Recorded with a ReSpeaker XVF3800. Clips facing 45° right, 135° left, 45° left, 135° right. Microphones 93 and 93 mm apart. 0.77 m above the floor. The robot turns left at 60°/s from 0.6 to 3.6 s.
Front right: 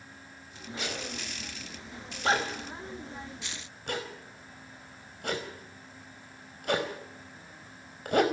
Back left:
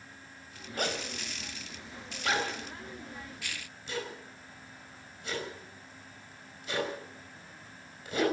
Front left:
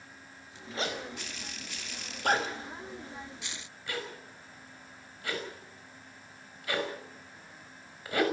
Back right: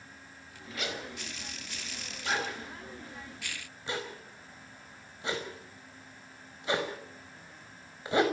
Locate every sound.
0.8 s a zipper: 100° left, 5 m; by 8.2 s 70° right, 5 m